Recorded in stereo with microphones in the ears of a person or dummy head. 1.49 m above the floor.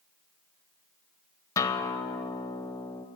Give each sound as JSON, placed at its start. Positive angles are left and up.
{"t": 1.6, "sound": "a guitar", "side_deg": 20, "distance_m": 0.7}